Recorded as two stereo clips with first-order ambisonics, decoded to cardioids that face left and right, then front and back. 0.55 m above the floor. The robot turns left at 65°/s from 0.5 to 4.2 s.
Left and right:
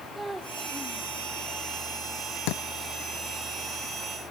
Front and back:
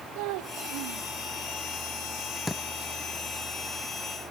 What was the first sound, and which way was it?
A child speaking, 170° right.